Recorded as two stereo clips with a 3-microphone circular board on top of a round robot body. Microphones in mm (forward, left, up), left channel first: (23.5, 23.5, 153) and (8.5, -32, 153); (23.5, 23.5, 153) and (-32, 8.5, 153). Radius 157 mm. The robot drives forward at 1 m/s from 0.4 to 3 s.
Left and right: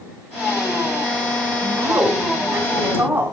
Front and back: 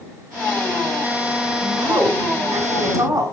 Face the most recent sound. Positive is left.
turn(degrees=-155)